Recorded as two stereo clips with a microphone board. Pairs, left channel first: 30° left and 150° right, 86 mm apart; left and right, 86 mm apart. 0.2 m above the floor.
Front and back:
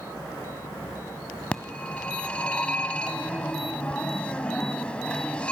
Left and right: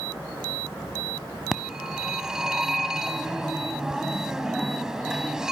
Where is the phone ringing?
20° right, 1.0 m.